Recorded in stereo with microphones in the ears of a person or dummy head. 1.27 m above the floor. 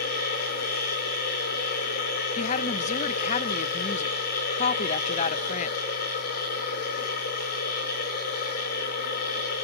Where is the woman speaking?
40° left (ahead or behind), 0.9 m.